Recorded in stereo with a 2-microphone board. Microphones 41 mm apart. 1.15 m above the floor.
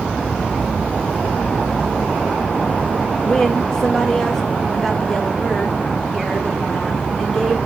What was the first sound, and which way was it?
A woman speaking, 15° left (ahead or behind).